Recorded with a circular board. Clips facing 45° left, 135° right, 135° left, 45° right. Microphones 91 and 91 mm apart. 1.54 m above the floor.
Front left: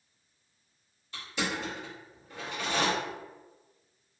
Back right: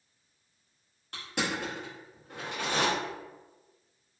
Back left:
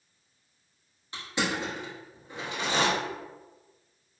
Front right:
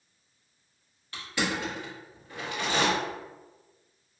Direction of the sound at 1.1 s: 155° right.